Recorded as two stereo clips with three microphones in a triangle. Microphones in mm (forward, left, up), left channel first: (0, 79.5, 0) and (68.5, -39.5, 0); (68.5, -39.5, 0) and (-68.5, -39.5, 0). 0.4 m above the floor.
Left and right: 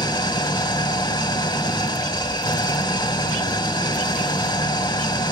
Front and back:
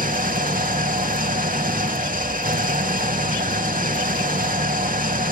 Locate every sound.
0.0 s an engine running: 175° left, 0.7 m